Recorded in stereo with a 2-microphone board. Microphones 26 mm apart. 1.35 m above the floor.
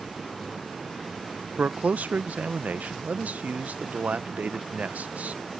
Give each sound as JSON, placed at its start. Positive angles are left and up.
{"t": 1.6, "sound": "a man speaking", "side_deg": -80}